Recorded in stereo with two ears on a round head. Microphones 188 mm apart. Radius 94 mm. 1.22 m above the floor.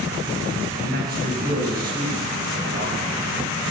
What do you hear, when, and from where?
0.8 s a man speaking: 45° right (ahead or behind), 9 m